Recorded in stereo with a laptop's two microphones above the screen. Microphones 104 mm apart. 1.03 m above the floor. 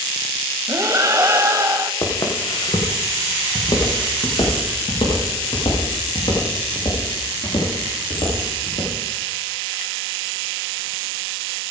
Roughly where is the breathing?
Right.